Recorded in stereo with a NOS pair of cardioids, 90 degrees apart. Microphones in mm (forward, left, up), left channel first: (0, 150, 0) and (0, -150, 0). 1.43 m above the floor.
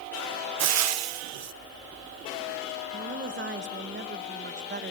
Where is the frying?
60° right, 0.7 m.